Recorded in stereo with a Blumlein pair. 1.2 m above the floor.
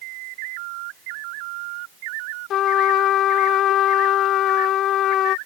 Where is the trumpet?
30° left.